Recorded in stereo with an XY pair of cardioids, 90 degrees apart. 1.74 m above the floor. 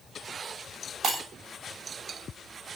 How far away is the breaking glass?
About 7 m.